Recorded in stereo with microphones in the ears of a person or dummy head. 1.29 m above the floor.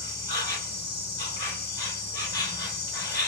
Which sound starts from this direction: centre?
An insect, at 0.0 s.